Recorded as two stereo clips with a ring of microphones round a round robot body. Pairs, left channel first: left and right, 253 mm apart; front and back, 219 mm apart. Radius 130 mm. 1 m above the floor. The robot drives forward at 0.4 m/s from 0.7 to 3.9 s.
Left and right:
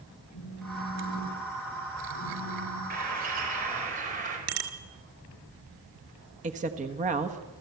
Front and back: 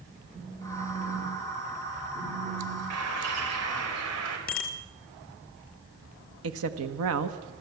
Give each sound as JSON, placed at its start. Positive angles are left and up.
{"t": 0.3, "sound": "a phone buzzing", "azimuth_deg": 110, "distance_m": 5.0}
{"t": 2.9, "sound": "a bird", "azimuth_deg": -150, "distance_m": 4.0}
{"t": 4.5, "sound": "a bicycle bell", "azimuth_deg": -60, "distance_m": 2.0}
{"t": 6.4, "sound": "a woman speaking", "azimuth_deg": -150, "distance_m": 1.3}